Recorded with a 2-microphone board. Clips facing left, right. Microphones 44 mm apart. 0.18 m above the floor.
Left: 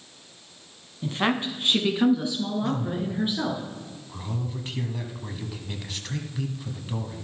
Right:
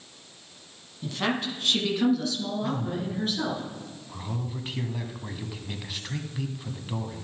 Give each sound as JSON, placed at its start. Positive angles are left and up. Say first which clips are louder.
{"t": 1.0, "sound": "a woman speaking", "louder": "left 3 dB", "side_deg": 30, "distance_m": 1.2}
{"t": 2.6, "sound": "a man speaking", "louder": "left 2 dB", "side_deg": -5, "distance_m": 1.0}